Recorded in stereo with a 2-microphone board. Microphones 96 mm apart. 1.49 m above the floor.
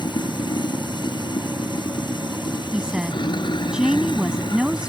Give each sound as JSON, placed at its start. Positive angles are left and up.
{"t": 0.0, "sound": "running water", "side_deg": 50}
{"t": 2.7, "sound": "a woman speaking", "side_deg": -10}